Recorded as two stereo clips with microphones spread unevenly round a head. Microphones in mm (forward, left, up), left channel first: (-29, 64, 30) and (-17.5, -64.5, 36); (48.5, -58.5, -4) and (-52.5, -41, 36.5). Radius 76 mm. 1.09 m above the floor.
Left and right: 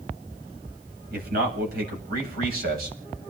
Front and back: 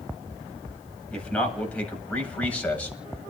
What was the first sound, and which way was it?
A man speaking, 85° right.